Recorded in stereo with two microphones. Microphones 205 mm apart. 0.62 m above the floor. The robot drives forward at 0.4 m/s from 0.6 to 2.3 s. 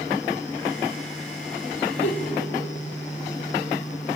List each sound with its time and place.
2.0 s a giggle: 75° left (ahead or behind), 3 m; by 2.3 s 70° left (ahead or behind), 3 m